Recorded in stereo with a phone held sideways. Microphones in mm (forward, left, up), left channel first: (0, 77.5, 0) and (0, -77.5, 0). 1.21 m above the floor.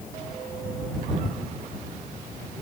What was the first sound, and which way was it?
Only background noise.